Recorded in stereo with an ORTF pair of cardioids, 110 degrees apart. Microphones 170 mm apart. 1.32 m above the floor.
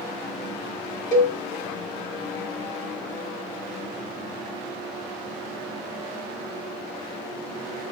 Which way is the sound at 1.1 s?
50° left.